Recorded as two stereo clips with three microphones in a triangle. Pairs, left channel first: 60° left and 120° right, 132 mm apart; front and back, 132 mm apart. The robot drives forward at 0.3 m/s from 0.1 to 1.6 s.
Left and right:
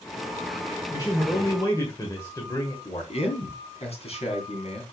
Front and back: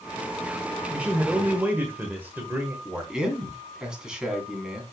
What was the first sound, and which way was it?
A man speaking, 100° left.